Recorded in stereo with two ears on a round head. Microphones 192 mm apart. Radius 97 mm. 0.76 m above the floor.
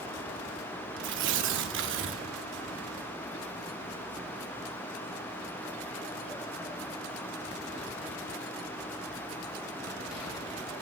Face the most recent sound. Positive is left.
turn(degrees=-55)  # may be behind; listen again after turning